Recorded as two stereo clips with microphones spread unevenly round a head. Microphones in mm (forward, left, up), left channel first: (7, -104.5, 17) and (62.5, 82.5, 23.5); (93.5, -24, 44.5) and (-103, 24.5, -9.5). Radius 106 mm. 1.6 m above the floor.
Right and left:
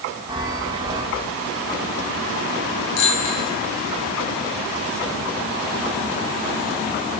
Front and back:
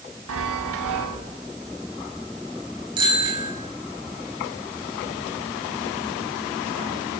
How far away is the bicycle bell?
About 7 m.